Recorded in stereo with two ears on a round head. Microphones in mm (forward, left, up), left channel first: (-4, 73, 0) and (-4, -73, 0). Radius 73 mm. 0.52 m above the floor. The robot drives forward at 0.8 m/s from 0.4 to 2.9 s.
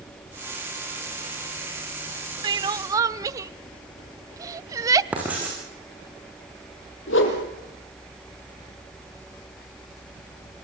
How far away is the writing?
About 7.5 m.